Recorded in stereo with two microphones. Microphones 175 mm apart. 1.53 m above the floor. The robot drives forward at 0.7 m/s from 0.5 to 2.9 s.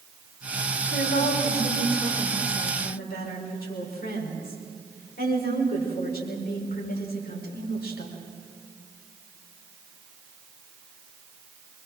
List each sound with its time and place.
0.9 s a woman speaking: 90° left, 5.5 m; by 8.2 s 75° left (ahead or behind), 5.5 m